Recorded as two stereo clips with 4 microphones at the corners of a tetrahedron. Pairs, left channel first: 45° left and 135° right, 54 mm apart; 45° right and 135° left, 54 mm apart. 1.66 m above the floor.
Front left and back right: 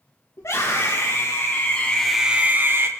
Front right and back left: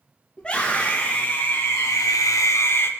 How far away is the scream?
About 2.5 m.